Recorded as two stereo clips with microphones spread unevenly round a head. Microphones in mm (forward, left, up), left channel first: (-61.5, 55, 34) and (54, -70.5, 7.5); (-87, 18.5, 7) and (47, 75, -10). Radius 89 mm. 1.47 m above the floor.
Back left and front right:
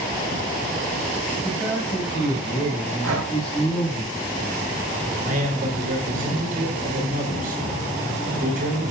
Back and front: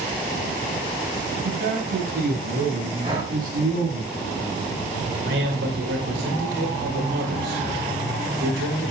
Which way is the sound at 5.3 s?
Straight ahead.